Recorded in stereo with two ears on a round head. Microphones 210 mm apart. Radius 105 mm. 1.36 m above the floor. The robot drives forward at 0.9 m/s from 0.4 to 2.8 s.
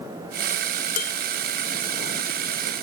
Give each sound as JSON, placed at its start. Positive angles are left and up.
{"t": 1.0, "sound": "dishes clattering", "side_deg": 40}